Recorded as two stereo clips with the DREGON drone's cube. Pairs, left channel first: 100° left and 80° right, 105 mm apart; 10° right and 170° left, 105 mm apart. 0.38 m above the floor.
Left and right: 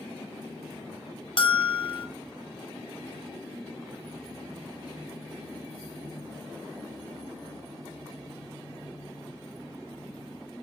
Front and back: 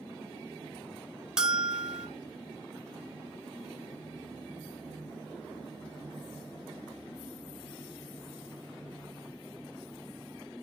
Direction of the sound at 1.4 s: 85° left.